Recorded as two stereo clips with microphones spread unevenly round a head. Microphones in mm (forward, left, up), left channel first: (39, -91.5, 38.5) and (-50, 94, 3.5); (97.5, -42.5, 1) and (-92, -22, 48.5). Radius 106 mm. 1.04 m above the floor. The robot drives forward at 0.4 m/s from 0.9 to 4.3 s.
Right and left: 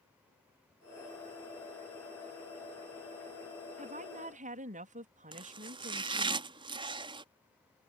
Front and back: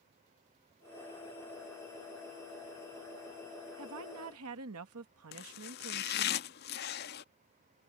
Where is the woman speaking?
165° left.